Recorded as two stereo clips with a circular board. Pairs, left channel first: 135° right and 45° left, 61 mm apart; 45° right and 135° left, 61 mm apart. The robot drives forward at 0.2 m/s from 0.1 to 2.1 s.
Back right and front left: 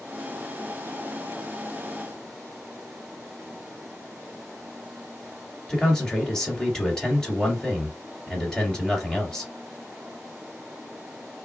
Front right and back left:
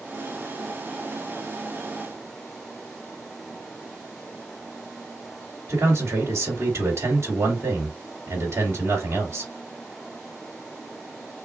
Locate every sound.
5.7 s a man speaking: 145° left, 1.9 m